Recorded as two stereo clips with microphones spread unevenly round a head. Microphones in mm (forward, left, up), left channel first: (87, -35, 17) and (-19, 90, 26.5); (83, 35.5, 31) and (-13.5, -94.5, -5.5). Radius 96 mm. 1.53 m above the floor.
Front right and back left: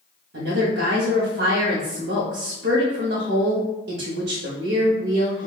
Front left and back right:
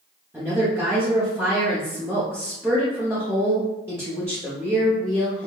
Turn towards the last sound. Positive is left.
turn(degrees=160)